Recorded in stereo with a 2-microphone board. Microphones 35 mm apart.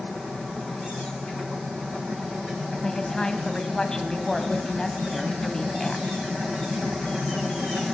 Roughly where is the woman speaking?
Left.